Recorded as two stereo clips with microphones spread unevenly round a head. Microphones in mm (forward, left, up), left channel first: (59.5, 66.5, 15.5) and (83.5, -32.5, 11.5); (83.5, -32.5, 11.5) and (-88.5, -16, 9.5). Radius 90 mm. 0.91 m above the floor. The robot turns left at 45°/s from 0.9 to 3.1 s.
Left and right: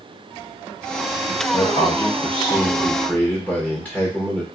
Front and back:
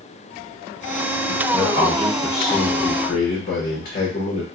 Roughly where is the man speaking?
Left.